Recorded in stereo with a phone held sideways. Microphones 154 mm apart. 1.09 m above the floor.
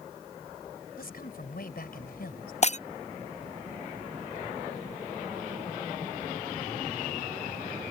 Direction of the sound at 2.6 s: 45° left (ahead or behind).